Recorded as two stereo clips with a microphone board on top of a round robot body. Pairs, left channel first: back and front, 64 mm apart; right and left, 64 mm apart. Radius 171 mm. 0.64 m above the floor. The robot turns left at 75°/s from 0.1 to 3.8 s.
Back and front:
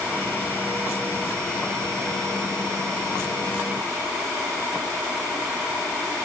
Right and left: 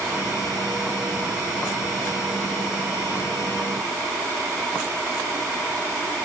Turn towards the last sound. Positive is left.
No sound to turn to.